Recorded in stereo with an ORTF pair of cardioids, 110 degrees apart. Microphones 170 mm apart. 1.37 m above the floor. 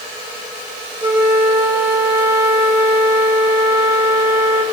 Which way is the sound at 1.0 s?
15° right.